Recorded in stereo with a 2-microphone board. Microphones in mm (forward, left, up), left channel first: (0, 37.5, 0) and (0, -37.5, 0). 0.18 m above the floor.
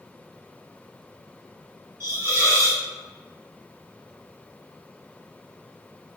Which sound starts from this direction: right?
A hiss, at 2.0 s.